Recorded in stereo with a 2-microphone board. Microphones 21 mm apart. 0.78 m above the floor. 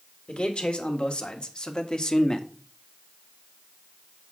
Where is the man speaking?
60° left (ahead or behind), 2.5 m; by 2.5 s 30° left (ahead or behind), 1.2 m.